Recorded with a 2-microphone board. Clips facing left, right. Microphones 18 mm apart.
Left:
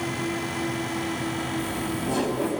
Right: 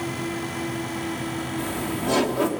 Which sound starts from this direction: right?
Laughter, at 1.6 s.